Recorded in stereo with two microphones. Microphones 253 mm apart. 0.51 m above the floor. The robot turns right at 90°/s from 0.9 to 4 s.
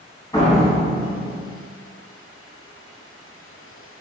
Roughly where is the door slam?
Behind.